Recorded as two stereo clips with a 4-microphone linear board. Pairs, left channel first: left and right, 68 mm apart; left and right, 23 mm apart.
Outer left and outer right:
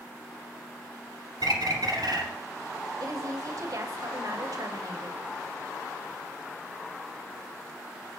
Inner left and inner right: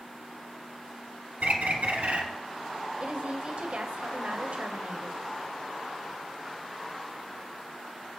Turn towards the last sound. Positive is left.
turn(degrees=-55)  # may be behind; listen again after turning